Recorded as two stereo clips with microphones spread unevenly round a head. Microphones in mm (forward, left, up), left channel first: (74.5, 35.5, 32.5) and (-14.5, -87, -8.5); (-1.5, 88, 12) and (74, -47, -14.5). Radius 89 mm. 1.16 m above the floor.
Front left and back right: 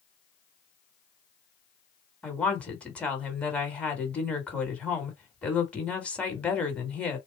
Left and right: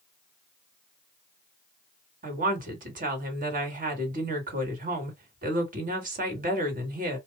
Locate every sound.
2.2 s a woman speaking: 30° right, 1.8 m